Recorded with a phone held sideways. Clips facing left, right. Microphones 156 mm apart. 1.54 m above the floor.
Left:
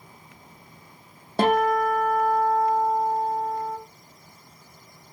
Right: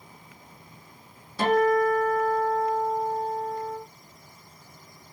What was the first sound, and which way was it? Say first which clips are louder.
A guitar: even; 65° left (ahead or behind).